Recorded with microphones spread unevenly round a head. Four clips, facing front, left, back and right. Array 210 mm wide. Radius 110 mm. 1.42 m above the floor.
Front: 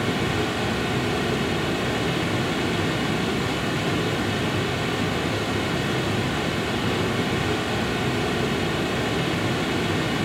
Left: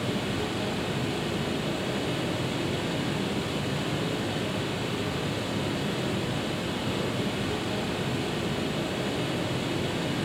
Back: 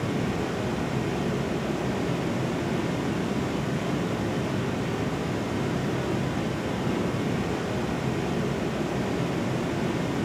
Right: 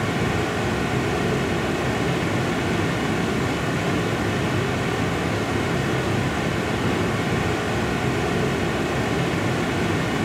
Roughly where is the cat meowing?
No cat meowing in this recording.